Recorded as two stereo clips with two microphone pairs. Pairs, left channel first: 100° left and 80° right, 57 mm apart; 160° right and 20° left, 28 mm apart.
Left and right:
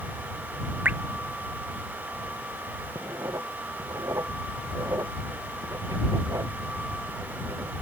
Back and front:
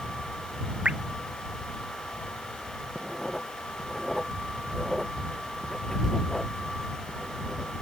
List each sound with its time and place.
0.8 s dripping: 25° right
3.0 s writing: 80° right